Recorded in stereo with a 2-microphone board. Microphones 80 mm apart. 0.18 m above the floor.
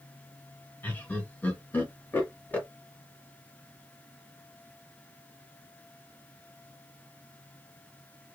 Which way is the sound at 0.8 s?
25° left (ahead or behind).